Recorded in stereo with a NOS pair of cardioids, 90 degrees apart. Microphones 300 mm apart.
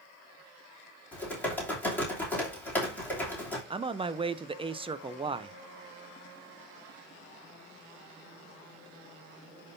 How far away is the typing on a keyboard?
About 3 m.